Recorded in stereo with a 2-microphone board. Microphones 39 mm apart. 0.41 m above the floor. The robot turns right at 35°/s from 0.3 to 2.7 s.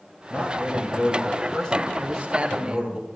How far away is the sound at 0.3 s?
About 2.5 m.